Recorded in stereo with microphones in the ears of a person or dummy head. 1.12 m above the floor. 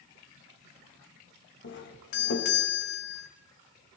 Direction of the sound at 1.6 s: 55° left (ahead or behind).